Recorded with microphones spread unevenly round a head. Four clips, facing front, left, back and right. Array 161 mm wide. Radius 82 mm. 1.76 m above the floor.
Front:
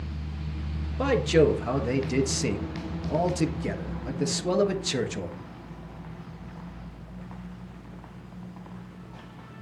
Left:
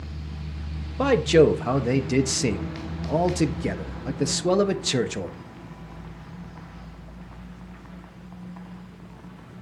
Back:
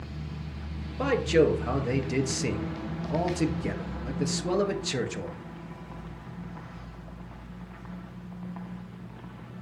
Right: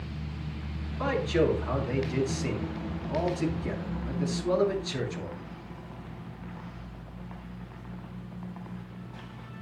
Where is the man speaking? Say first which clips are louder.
Left 9 dB, front 1 dB; 70° left, 1.5 m.